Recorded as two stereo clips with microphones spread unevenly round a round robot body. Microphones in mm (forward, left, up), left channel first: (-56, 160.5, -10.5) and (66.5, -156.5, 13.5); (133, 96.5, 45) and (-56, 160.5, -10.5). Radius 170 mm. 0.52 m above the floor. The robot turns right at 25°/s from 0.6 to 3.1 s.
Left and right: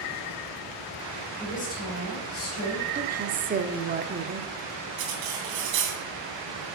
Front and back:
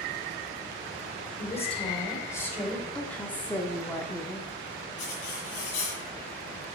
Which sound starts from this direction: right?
Cutlery clinking, at 5.0 s.